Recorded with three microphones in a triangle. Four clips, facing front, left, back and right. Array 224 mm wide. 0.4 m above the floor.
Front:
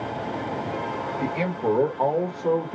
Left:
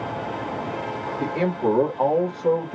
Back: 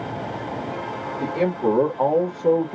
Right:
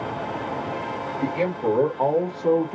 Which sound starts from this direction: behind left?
A man speaking, at 1.2 s.